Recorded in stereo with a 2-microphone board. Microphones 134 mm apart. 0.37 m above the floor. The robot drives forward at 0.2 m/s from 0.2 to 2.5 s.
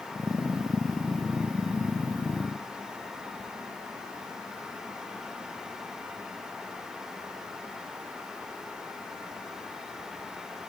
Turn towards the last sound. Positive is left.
No sound to turn to.